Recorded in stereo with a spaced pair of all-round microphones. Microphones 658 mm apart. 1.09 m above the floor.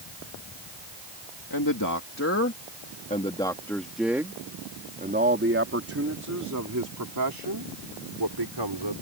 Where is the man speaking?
30° left (ahead or behind); by 9.0 s 40° right (ahead or behind).